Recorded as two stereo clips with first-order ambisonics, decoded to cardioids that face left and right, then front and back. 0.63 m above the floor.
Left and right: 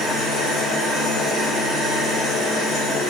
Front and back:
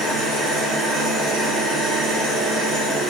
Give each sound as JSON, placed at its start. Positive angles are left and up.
{"t": 0.0, "sound": "an engine running", "azimuth_deg": 155, "distance_m": 1.9}